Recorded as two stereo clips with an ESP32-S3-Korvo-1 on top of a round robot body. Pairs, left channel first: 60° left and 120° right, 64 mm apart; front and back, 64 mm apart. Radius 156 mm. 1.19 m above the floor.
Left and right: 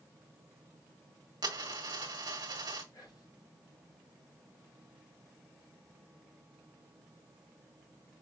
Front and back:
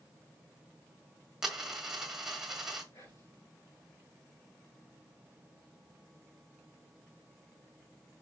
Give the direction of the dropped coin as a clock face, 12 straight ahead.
3 o'clock.